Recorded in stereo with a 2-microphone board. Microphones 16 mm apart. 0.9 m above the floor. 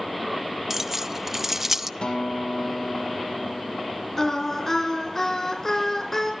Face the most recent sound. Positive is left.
turn(degrees=25)  # may be behind; listen again after turning